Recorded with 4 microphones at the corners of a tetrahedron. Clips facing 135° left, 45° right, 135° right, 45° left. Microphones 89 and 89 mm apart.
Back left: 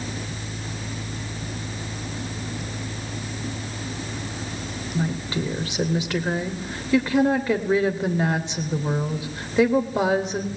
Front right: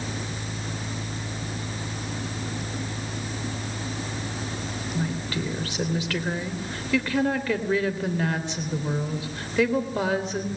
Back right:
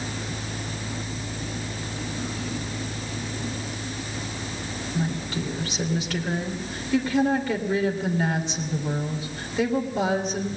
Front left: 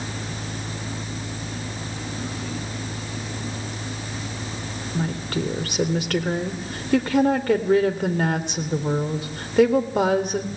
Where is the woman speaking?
65° left, 3 m.